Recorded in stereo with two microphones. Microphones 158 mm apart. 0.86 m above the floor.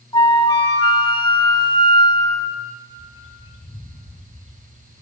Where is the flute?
30° left (ahead or behind), 0.8 m.